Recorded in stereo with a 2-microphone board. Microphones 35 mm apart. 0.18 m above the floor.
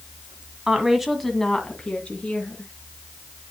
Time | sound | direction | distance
0.7 | a woman speaking | 20° right (ahead or behind) | 1.5 m